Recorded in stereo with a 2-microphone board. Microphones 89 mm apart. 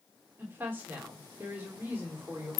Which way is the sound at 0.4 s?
20° right (ahead or behind).